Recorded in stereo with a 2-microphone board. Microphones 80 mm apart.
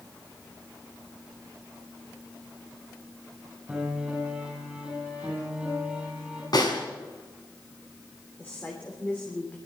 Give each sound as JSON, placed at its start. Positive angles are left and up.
{"t": 3.7, "sound": "a piano", "side_deg": -10, "distance_m": 8.5}
{"t": 6.5, "sound": "a snare drum", "side_deg": 60, "distance_m": 4.0}
{"t": 8.4, "sound": "a woman speaking", "side_deg": 25, "distance_m": 3.0}